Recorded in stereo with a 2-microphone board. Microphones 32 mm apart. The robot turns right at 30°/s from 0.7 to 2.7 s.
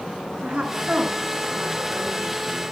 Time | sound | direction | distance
0.4 | a woman speaking | 160° right | 7.5 m